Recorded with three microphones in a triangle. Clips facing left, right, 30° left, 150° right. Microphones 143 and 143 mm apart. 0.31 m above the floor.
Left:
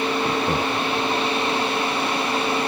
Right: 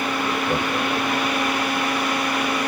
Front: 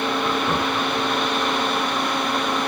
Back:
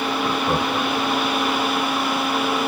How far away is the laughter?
About 2.5 m.